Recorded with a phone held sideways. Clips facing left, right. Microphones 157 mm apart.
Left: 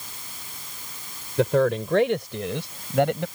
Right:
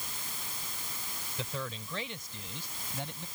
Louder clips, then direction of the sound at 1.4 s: Left 20 dB; 75° left (ahead or behind).